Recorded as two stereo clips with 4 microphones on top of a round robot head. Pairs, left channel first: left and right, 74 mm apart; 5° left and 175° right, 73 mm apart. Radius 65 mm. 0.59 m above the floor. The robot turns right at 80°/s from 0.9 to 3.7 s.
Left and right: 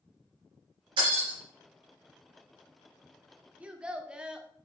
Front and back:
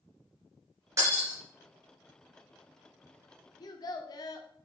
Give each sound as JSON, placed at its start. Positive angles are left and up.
{"t": 1.0, "sound": "breaking glass", "azimuth_deg": -115, "distance_m": 3.5}
{"t": 3.6, "sound": "a child speaking", "azimuth_deg": -20, "distance_m": 1.2}